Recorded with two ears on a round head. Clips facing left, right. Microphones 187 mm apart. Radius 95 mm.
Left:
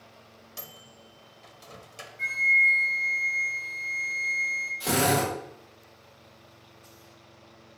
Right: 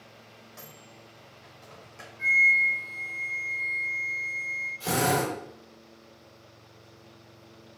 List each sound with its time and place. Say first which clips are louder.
0.6 s a microwave: left 2 dB; 45° left (ahead or behind), 1.0 m
2.2 s a flute: right 2 dB; 20° left (ahead or behind), 2.5 m
4.8 s a drill: left 1 dB; 15° left (ahead or behind), 4 m